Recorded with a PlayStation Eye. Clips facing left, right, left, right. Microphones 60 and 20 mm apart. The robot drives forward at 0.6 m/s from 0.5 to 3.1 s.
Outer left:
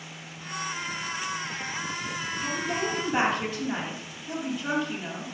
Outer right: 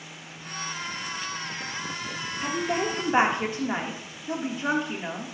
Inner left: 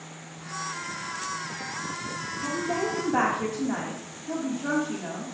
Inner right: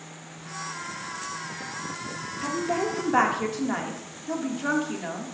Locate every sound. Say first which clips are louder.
2.4 s a woman speaking: outer right 3 dB, inner right 2 dB; 30° right (ahead or behind), 1.4 m